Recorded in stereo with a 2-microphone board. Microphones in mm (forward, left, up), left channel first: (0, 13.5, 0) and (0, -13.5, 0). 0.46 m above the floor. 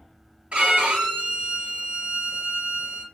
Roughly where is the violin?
Right.